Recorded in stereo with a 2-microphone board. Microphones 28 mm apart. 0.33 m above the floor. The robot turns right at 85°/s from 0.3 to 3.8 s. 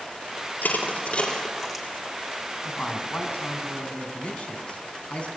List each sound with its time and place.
0.6 s crushing: 80° left, 6 m; by 1.9 s 15° right (ahead or behind), 6 m
2.6 s a man speaking: 30° left, 4 m; by 5.3 s 130° left, 4 m